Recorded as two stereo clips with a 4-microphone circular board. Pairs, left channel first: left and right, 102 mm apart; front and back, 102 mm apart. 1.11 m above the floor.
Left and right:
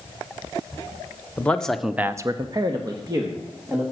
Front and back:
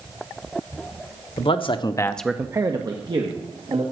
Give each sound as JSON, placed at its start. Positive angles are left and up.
{"t": 1.4, "sound": "a man speaking", "azimuth_deg": 15, "distance_m": 1.1}